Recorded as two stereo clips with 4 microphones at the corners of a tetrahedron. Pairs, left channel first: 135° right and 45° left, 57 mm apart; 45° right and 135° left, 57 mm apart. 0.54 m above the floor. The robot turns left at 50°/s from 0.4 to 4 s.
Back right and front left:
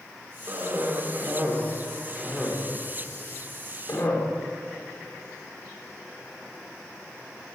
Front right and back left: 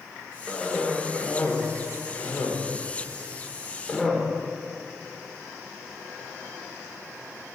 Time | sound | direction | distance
0.5 | a cough | 50° left | 1.6 m